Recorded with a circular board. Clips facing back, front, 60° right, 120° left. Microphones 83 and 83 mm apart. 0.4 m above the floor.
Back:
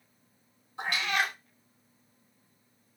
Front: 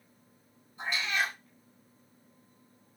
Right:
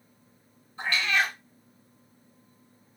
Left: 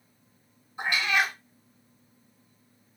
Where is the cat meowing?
165° right, 0.6 m.